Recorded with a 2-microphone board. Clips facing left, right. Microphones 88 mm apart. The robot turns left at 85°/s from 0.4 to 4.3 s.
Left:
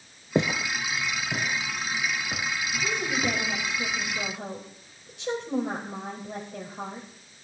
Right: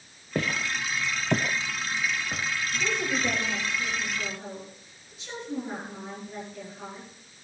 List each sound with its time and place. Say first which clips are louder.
0.3 s footsteps: left 3 dB; 25° left (ahead or behind), 0.7 m; by 3.4 s 75° left (ahead or behind), 3 m
2.8 s a woman speaking: even; 140° right, 3.5 m; by 7.1 s 90° left, 3.5 m